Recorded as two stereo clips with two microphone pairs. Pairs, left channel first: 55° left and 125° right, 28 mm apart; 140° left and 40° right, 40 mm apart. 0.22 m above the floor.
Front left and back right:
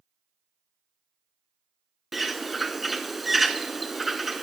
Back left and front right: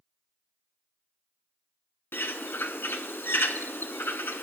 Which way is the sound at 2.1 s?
145° left.